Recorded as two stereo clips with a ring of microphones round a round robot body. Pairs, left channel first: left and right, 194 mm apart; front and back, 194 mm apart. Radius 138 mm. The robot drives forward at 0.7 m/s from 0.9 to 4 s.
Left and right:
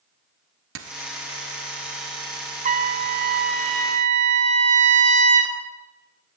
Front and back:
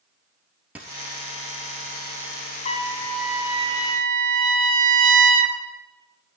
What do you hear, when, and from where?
0.8 s a dropped coin: 95° right, 1.1 m; by 1.0 s 100° right, 1.1 m
2.6 s a trumpet: 50° right, 0.9 m; by 5.5 s 140° right, 0.9 m